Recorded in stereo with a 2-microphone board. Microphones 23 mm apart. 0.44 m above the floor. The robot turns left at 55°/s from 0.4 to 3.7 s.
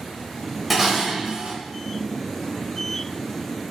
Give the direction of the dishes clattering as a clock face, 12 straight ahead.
12 o'clock.